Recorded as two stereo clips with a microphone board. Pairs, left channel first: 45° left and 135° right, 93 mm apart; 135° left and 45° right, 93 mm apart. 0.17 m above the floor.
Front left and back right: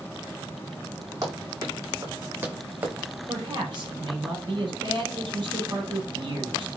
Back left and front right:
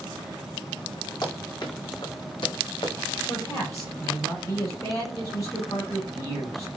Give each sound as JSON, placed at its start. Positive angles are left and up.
{"t": 1.2, "sound": "running footsteps", "azimuth_deg": 175, "distance_m": 5.0}
{"t": 3.3, "sound": "a man speaking", "azimuth_deg": -170, "distance_m": 5.5}